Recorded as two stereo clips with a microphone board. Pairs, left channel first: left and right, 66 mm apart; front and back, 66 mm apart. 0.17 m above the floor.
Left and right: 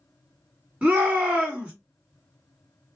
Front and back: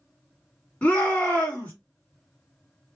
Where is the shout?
40° right, 1.6 m.